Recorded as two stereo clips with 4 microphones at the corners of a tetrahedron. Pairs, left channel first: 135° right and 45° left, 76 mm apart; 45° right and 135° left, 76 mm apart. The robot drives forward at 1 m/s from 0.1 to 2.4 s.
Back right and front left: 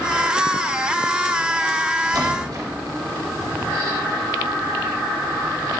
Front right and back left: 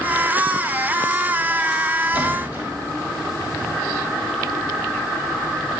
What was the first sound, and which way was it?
A splash, 70° left.